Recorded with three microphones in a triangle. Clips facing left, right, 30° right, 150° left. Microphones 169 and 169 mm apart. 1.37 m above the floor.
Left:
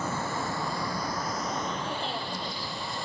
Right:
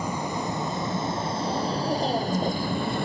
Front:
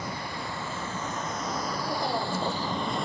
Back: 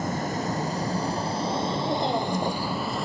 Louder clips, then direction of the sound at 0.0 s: Right 3 dB, back 8 dB; 165° right.